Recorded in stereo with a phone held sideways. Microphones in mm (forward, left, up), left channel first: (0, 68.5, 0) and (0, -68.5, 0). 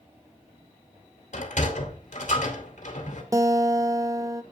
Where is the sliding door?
60° left (ahead or behind), 2 m.